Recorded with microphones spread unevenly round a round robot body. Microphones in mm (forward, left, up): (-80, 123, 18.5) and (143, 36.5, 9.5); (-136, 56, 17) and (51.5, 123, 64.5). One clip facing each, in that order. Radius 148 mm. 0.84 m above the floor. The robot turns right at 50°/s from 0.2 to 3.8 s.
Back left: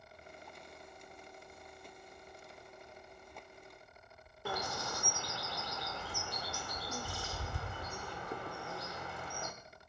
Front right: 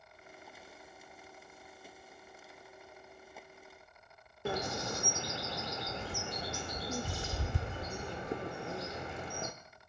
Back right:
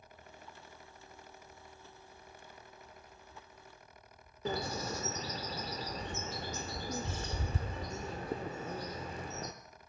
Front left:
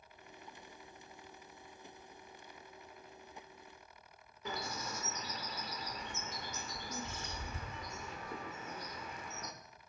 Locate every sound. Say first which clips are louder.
4.5 s a bird: front right 5 dB, back right 7 dB; 90° right, 0.5 m